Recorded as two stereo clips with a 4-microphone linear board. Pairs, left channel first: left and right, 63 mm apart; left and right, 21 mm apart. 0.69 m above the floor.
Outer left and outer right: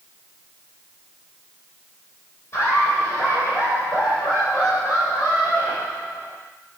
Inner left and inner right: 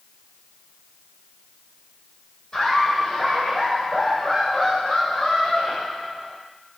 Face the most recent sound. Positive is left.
turn(degrees=75)  # may be behind; listen again after turning